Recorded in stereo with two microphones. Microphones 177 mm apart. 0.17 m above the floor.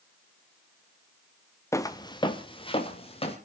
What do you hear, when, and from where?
1.7 s footsteps: 15° left (ahead or behind), 0.8 m; by 3.4 s 35° left (ahead or behind), 3 m